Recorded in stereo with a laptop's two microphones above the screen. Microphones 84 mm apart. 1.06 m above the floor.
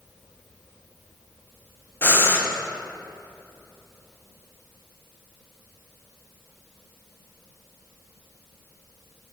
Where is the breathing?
25° left (ahead or behind), 0.7 m.